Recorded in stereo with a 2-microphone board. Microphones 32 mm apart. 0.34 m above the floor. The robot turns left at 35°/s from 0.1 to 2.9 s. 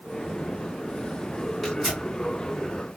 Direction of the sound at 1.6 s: 5° left (ahead or behind).